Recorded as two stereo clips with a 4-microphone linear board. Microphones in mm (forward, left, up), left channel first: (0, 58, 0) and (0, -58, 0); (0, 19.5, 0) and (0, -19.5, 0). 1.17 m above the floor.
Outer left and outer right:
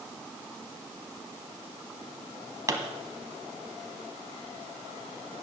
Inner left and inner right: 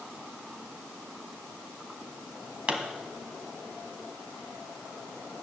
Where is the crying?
No crying in this recording.